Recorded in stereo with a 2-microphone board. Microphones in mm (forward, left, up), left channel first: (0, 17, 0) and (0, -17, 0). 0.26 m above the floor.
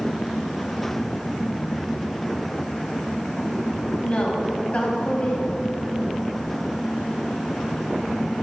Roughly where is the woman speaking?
Left.